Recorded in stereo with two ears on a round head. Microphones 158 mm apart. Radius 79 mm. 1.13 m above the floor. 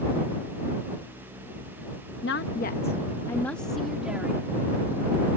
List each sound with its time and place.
2.2 s a woman speaking: 70° left (ahead or behind); by 4.4 s 10° right (ahead or behind)